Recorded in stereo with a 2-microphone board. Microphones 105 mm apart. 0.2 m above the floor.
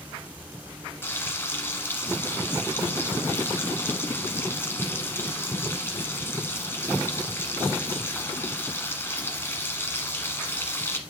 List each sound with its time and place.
1.0 s frying: 20° left (ahead or behind), 1.2 m